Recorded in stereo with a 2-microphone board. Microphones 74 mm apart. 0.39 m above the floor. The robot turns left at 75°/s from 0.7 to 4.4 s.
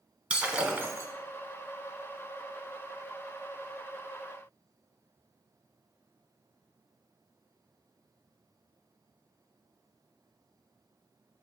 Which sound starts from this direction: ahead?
Breaking glass, at 0.3 s.